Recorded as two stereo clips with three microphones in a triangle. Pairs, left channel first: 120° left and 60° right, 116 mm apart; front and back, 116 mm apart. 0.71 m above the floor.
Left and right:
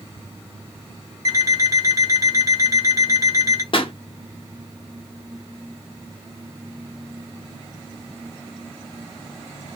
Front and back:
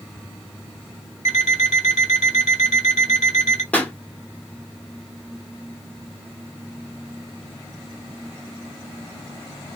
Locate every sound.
1.2 s an alarm clock: straight ahead, 1.1 m
3.7 s a pop: 75° left, 0.7 m